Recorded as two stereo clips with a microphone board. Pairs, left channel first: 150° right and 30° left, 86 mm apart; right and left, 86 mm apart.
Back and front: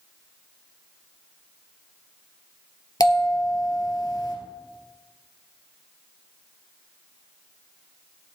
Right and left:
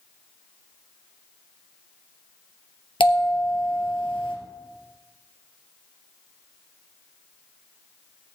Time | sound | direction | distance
3.0 | a bell | 105° right | 2.5 m